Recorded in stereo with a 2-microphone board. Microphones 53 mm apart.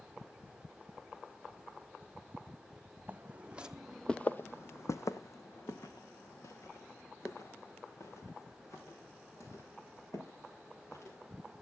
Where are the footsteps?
30° right (ahead or behind), 1.1 m; by 11.5 s 60° left (ahead or behind), 6.5 m.